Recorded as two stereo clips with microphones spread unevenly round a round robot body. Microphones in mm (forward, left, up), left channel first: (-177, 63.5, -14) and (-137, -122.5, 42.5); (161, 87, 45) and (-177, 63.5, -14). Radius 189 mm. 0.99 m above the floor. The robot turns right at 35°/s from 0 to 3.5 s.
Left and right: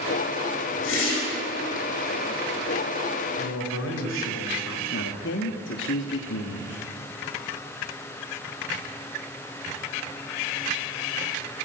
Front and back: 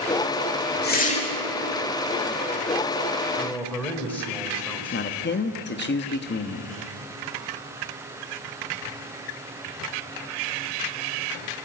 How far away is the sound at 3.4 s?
About 4 m.